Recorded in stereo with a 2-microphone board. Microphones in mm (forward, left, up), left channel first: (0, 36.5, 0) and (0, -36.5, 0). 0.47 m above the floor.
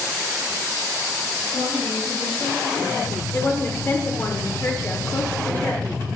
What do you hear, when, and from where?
1.5 s a woman speaking: 50° right (ahead or behind), 3.5 m
3.3 s a woman speaking: 30° left (ahead or behind), 1.0 m